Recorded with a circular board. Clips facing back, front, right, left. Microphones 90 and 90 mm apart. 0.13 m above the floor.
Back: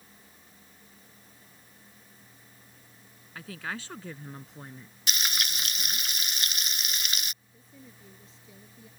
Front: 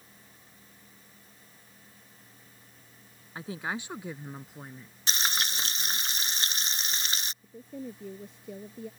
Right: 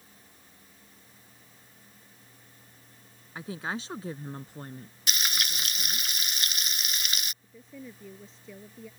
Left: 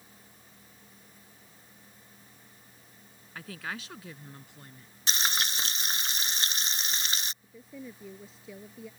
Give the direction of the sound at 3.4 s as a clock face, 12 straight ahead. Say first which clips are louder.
Front 3 dB, right 4 dB; 1 o'clock.